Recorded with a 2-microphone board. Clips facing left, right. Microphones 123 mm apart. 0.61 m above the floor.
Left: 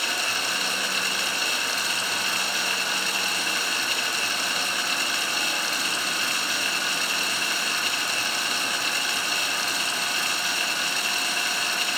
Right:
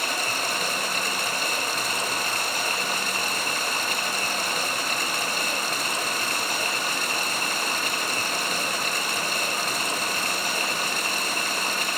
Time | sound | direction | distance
0.0 | running water | 45° right (ahead or behind) | 1.2 m